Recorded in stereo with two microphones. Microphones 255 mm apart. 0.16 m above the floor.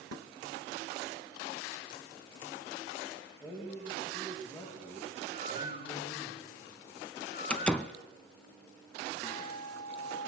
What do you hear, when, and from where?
3.4 s a man speaking: 15° left (ahead or behind), 8.5 m
5.3 s a bird: 40° left (ahead or behind), 1.8 m
7.5 s a door slam: 5° left (ahead or behind), 0.8 m
9.2 s a guitar: 15° left (ahead or behind), 7 m